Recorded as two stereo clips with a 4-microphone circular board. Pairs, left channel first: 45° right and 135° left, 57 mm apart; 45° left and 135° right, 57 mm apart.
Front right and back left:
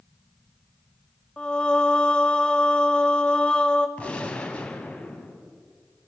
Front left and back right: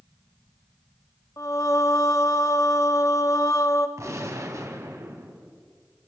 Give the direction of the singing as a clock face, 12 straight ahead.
11 o'clock.